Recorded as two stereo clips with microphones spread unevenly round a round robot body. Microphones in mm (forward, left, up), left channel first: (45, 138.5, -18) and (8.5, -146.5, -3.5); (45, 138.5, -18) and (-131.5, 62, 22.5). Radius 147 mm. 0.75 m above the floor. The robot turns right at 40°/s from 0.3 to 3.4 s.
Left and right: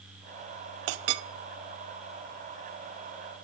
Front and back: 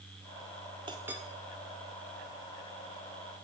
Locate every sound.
0.9 s a clink: 80° right, 0.6 m; by 1.2 s 65° right, 0.6 m